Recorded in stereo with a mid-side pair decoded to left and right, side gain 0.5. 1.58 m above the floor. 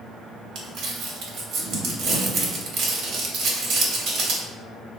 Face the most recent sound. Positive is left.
turn(degrees=-65)